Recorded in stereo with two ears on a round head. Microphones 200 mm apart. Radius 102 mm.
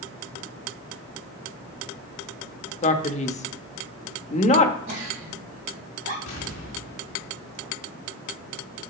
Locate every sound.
2.8 s a man speaking: 30° left (ahead or behind), 0.8 m
4.9 s a giggle: 35° right (ahead or behind), 3.5 m
6.3 s an explosion: 70° left (ahead or behind), 3 m